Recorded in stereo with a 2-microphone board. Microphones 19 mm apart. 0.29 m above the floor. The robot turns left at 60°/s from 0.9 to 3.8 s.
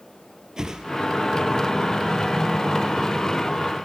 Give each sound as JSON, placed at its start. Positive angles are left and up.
{"t": 0.6, "sound": "a whoosh", "side_deg": -25, "distance_m": 4.0}